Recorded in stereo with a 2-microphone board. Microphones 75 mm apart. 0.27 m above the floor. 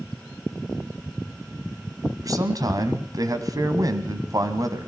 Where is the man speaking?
50° right (ahead or behind), 2.0 m.